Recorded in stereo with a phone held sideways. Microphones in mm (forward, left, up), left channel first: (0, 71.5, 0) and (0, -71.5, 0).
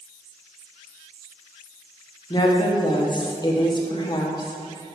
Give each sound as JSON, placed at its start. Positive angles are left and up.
{"t": 2.3, "sound": "a woman speaking", "side_deg": 30, "distance_m": 1.1}